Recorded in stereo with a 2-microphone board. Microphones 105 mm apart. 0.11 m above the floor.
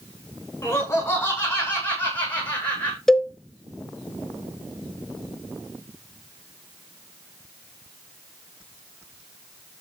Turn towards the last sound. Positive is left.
turn(degrees=5)  # may be behind; listen again after turning